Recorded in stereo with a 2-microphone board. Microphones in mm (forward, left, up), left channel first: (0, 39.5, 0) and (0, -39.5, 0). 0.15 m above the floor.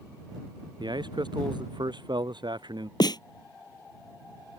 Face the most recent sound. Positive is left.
turn(degrees=60)  # may be behind; listen again after turning